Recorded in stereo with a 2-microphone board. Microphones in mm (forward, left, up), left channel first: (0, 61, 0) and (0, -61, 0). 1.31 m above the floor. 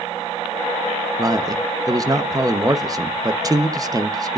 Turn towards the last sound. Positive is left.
turn(degrees=-30)  # may be behind; listen again after turning